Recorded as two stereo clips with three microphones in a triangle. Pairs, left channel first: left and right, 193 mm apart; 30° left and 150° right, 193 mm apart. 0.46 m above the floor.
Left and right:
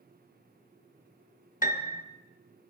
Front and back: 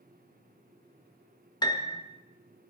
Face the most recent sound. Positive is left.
turn(degrees=85)